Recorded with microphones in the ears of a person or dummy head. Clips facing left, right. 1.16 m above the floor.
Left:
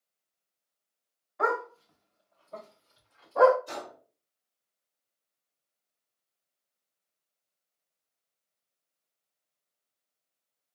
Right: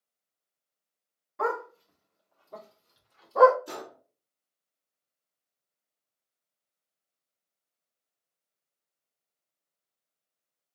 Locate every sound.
1.4 s a dog barking: 70° right (ahead or behind), 2 m; by 3.6 s 65° right (ahead or behind), 1.3 m
3.7 s a gunshot: 75° right (ahead or behind), 2.5 m